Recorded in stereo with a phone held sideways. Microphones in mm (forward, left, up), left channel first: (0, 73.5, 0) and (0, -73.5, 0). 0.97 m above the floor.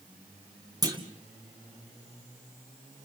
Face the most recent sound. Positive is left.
turn(degrees=-25)  # may be behind; listen again after turning